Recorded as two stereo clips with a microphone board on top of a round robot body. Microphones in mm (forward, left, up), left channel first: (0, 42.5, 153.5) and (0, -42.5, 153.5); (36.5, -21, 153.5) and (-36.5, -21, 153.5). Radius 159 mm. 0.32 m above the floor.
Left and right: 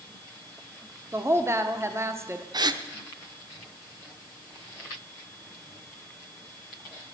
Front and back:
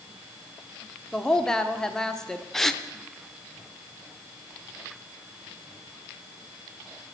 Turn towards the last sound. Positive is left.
turn(degrees=-85)